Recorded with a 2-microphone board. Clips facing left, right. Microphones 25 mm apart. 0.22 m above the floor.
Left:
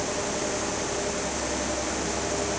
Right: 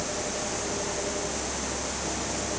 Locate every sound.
Only background noise.